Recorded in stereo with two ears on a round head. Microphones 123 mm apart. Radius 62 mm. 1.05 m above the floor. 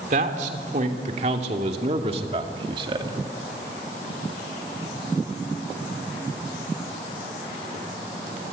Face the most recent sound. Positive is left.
turn(degrees=-30)  # may be behind; listen again after turning